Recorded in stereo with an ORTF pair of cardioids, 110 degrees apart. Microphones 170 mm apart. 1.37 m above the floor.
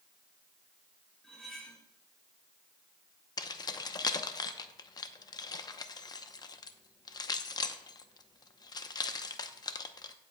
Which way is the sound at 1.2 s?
5° left.